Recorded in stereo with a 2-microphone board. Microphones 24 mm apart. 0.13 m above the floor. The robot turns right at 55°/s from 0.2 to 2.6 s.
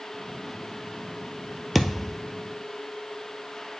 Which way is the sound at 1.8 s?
10° right (ahead or behind).